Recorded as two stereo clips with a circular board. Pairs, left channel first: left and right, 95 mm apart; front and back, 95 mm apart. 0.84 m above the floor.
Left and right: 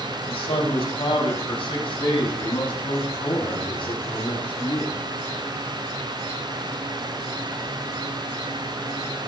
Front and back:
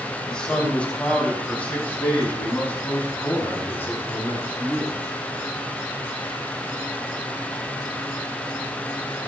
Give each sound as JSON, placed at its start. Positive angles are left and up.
{"t": 0.3, "sound": "a man speaking", "azimuth_deg": 80, "distance_m": 4.0}